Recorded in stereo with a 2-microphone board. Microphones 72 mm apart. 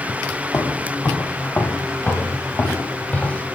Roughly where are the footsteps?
Left.